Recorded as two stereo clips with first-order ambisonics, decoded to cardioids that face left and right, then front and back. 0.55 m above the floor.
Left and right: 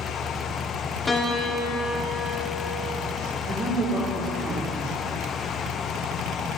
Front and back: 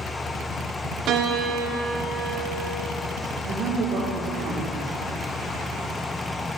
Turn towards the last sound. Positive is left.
turn(degrees=-140)